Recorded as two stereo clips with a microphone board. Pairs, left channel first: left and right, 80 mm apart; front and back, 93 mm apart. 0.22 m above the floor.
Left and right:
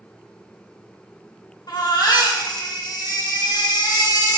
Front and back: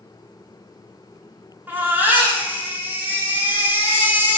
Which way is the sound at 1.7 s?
115° left.